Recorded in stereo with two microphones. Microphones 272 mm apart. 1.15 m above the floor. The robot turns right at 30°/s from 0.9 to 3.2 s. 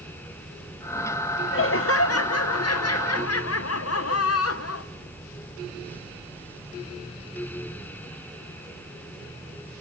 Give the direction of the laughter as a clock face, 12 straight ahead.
10 o'clock.